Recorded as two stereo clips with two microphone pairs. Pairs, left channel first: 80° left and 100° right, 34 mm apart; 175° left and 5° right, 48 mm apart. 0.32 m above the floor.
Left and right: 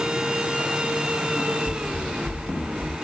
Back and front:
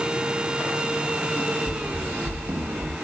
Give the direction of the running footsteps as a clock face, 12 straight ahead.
12 o'clock.